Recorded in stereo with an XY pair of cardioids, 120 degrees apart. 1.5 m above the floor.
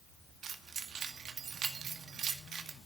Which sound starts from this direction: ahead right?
Keys jangling, at 0.4 s.